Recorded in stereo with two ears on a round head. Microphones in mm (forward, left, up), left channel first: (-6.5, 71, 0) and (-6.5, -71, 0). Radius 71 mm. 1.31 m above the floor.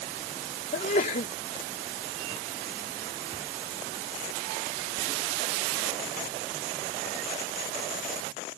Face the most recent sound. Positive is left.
turn(degrees=55)  # may be behind; listen again after turning